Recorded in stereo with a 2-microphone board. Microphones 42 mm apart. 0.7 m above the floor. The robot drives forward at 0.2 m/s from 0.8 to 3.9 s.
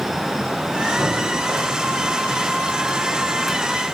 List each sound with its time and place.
1.0 s breathing: 65° right (ahead or behind), 3 m